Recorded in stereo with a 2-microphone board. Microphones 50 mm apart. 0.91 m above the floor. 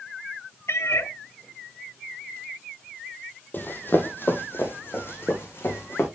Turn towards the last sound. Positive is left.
turn(degrees=45)  # may be behind; listen again after turning